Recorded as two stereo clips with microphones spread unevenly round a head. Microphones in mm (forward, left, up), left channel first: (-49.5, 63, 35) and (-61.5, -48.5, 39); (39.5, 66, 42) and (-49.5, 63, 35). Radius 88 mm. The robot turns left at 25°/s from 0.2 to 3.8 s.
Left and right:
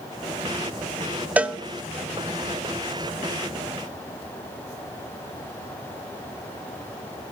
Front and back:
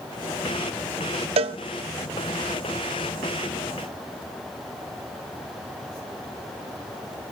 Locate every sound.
1.4 s a cowbell: 175° right, 0.5 m; by 1.6 s straight behind, 0.5 m